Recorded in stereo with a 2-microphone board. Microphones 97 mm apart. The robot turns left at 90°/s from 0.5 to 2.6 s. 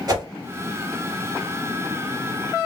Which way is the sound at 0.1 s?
35° right (ahead or behind).